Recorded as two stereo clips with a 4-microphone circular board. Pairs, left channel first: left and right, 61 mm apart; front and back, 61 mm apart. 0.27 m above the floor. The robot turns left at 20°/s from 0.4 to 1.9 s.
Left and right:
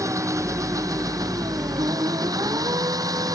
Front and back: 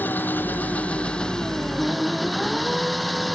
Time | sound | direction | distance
0.0 | an engine running | 60° right | ?